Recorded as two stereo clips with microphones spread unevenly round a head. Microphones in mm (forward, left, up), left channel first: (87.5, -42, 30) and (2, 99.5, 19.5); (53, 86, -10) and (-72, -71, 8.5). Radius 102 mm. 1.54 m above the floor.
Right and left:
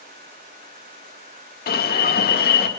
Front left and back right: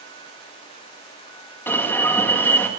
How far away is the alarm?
About 2.5 m.